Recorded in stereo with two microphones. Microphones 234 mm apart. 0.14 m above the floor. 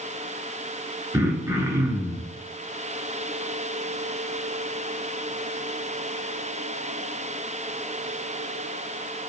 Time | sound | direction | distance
1.1 | throat clearing | 15° right (ahead or behind) | 0.5 m